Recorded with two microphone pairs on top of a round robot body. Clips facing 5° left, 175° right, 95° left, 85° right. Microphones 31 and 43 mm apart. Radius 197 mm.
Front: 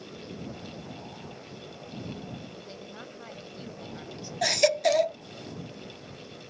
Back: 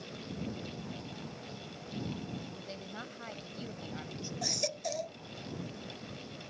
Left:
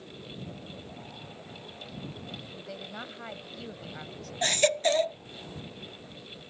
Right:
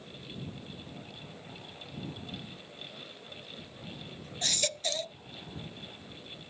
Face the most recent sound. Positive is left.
turn(degrees=40)